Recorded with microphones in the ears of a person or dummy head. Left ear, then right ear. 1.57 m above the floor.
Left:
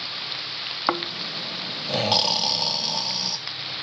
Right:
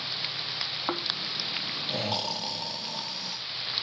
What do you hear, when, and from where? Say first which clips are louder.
0.9 s snoring: left 4 dB; 30° left (ahead or behind), 0.8 m